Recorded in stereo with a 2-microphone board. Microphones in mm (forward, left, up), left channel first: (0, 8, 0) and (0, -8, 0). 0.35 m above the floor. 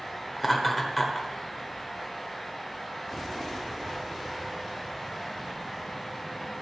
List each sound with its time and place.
0.4 s laughter: 5° left (ahead or behind), 1.2 m